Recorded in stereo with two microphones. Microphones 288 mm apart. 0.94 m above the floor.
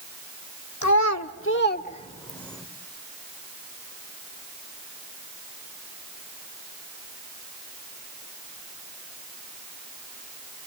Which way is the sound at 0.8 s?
80° left.